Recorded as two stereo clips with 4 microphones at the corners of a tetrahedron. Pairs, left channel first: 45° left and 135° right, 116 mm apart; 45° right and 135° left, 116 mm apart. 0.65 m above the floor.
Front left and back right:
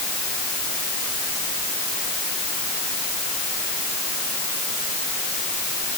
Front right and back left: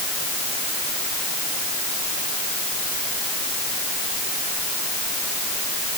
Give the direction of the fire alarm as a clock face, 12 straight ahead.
No fire alarm in this recording.